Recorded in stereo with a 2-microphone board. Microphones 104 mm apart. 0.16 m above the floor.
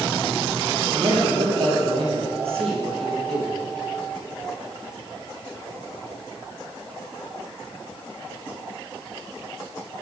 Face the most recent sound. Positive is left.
turn(degrees=-70)  # may be behind; listen again after turning